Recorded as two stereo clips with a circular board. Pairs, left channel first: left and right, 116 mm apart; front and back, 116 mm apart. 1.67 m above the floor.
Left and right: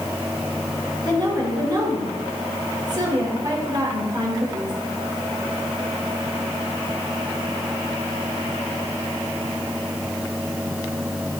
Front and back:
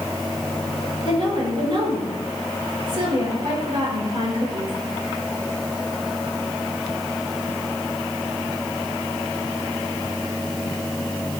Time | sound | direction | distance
1.1 | a woman speaking | 140° right | 5.5 m